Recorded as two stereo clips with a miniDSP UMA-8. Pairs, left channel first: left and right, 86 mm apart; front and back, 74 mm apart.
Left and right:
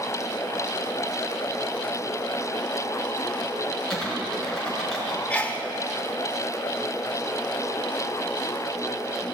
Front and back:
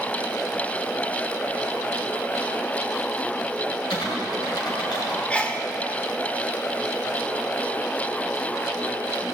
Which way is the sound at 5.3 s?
45° left.